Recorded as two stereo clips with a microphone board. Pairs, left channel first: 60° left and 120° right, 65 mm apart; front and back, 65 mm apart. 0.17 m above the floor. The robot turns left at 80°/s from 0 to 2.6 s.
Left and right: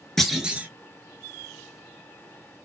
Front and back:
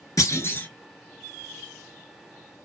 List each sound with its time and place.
0.2 s a clunk: 20° right, 0.8 m; by 0.7 s 65° right, 0.8 m